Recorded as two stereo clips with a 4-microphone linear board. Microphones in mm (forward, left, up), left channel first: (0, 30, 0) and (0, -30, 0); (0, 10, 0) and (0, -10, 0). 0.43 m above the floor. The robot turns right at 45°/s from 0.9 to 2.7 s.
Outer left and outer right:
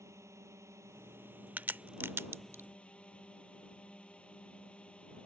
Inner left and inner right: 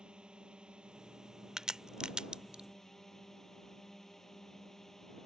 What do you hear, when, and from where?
0.0 s a drone: 60° right; by 5.3 s 20° left
1.6 s a crack: 35° right (ahead or behind); by 2.6 s 50° right (ahead or behind)